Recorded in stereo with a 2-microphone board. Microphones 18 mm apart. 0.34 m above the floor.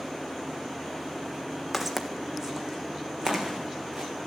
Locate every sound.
1.7 s footsteps: 10° right (ahead or behind), 1.3 m; by 4.1 s 55° right (ahead or behind), 2.0 m